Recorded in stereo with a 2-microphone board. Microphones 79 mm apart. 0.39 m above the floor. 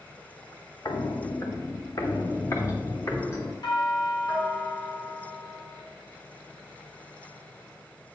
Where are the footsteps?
55° left (ahead or behind), 1.5 m; by 3.5 s 30° left (ahead or behind), 2.5 m.